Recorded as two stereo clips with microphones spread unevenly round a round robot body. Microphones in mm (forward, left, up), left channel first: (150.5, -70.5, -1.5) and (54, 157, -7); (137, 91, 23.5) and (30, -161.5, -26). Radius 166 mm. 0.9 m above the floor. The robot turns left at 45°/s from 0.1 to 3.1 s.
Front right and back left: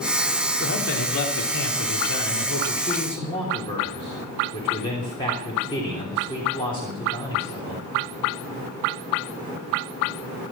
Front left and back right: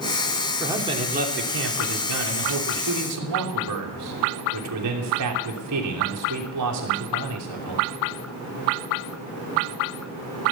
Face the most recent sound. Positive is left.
turn(degrees=-145)